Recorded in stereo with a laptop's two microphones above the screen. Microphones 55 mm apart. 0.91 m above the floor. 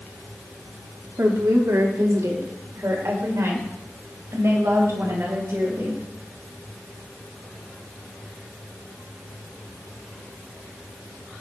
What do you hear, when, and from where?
1.2 s a woman speaking: 80° right, 1.5 m; by 6.0 s 50° right (ahead or behind), 4.5 m